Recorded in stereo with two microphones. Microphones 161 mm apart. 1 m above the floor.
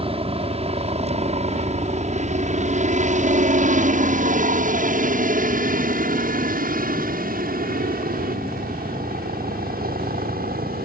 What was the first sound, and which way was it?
A helicopter, 35° right (ahead or behind).